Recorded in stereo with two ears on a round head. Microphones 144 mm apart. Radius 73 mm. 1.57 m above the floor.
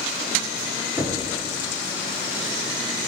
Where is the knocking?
15° right (ahead or behind), 0.9 m.